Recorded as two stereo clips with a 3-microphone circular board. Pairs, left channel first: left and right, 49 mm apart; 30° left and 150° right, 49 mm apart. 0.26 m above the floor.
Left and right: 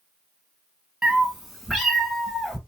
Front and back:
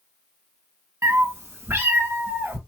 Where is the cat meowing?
165° right, 0.5 m; by 2.6 s 175° left, 1.3 m.